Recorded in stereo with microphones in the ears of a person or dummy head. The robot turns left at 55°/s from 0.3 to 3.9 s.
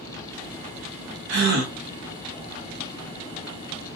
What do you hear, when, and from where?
1.3 s a gasp: 70° right (ahead or behind), 0.7 m; by 1.7 s 45° right (ahead or behind), 0.7 m